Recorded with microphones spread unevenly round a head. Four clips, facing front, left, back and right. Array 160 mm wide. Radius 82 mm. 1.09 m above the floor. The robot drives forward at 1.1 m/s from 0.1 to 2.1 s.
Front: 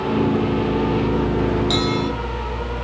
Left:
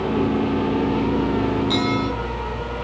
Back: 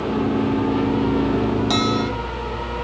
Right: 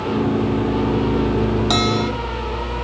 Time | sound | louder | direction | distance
1.7 | a bell | right 2 dB, even | 90° right | 3.5 m